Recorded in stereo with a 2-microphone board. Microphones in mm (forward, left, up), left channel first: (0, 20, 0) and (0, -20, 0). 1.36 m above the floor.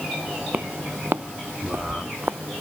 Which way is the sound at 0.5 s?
50° right (ahead or behind).